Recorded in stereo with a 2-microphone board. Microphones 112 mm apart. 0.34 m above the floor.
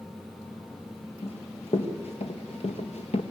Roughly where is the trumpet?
I don't hear a trumpet.